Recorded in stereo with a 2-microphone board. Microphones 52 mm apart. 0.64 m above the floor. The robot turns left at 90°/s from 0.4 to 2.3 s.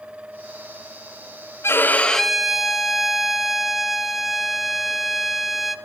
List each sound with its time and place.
1.6 s a violin: 55° left, 1.7 m; by 5.8 s 5° right, 1.7 m